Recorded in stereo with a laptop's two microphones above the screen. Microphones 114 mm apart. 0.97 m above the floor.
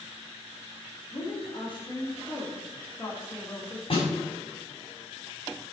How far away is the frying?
I don't hear frying.